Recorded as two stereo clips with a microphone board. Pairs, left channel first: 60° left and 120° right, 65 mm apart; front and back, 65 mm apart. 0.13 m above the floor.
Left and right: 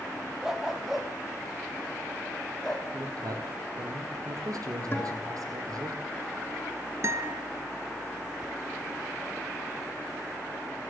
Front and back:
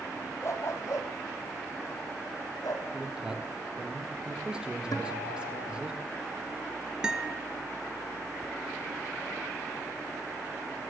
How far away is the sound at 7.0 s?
About 2.0 m.